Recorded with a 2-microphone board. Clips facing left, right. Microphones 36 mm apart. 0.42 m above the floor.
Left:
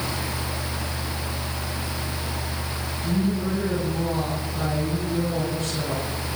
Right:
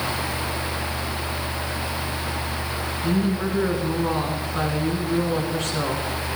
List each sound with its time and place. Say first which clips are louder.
3.0 s a woman speaking: right 1 dB; 80° right, 4.5 m